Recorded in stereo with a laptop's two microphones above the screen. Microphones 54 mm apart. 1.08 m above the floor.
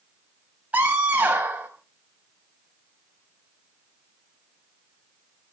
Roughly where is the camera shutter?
I don't hear a camera shutter.